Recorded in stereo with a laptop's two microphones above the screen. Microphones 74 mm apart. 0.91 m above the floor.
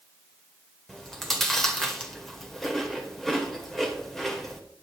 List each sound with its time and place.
0.9 s chewing: 5° left (ahead or behind), 2 m